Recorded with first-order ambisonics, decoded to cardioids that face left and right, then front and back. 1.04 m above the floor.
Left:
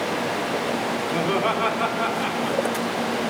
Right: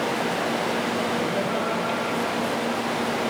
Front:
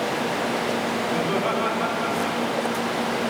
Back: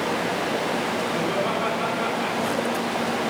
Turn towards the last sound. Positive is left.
turn(degrees=110)